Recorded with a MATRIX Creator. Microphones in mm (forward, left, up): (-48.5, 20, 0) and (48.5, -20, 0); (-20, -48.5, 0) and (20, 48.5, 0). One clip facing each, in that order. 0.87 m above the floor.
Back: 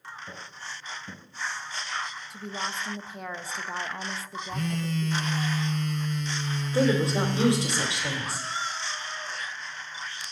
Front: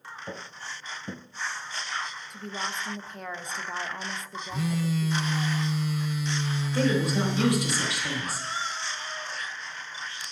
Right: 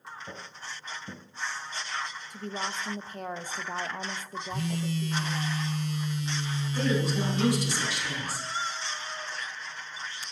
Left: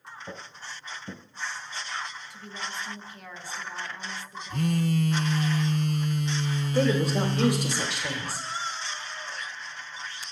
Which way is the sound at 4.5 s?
60° left.